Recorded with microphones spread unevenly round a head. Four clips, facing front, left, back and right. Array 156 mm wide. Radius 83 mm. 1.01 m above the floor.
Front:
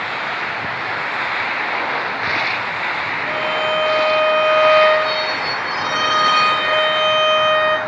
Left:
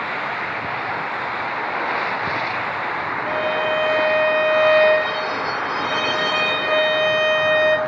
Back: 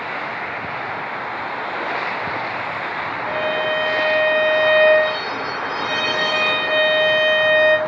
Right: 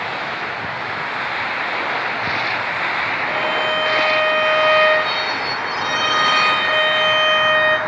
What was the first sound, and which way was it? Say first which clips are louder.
A violin: left 1 dB, front 1 dB; 155° left.